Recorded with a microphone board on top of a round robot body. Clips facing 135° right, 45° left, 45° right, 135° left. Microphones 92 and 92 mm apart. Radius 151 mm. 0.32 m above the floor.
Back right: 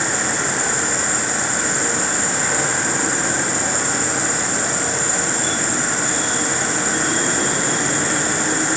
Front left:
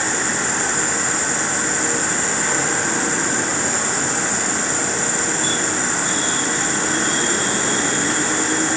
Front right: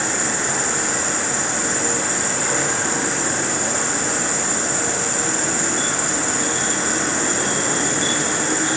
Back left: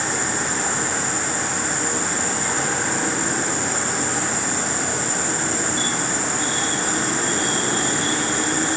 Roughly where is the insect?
Ahead right.